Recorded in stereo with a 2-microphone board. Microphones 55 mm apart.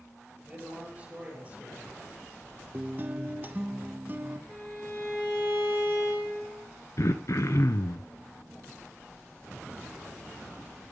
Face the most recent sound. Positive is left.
turn(degrees=65)  # may be behind; listen again after turning